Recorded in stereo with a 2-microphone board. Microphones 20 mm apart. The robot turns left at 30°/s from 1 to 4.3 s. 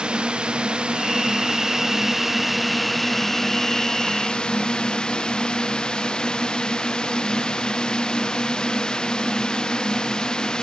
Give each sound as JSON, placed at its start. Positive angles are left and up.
{"t": 0.0, "sound": "a drone", "side_deg": -50}